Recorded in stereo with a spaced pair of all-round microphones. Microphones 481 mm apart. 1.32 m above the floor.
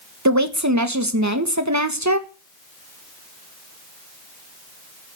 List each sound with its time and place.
0.2 s a woman speaking: 35° right (ahead or behind), 1.6 m